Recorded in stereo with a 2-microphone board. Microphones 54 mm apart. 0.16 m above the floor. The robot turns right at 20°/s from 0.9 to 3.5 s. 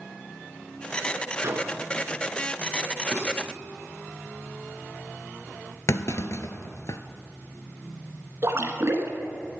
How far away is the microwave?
About 1.4 m.